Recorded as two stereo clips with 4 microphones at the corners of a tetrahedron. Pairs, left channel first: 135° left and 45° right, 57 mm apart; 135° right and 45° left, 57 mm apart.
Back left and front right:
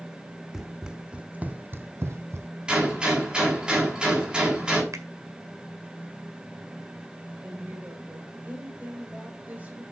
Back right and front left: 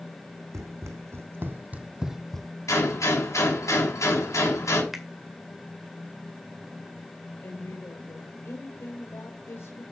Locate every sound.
0.5 s running footsteps: 35° left, 1.5 m; by 2.5 s 60° right, 1.0 m
2.7 s a gunshot: 120° right, 5.5 m
4.9 s a finger snap: 45° right, 1.8 m
7.4 s a woman speaking: 105° right, 2.5 m